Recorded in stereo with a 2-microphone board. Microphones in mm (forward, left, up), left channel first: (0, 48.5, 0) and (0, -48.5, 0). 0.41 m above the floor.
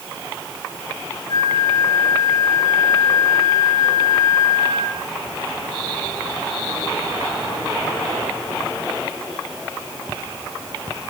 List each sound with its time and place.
1.3 s a flute: 50° left (ahead or behind), 8.5 m